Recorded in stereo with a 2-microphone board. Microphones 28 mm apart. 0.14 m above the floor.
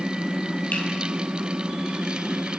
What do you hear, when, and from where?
0.7 s a finger snap: 65° left (ahead or behind), 3.5 m